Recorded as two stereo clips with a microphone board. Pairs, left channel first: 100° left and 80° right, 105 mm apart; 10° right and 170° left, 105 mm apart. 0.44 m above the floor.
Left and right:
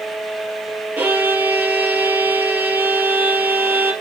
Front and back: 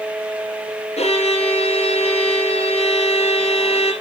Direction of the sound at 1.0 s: 10° right.